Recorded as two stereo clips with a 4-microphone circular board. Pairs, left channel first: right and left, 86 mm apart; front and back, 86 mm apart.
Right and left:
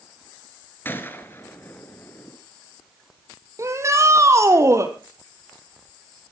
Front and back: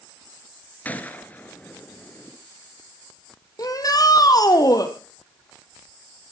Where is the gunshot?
50° right, 1.7 m.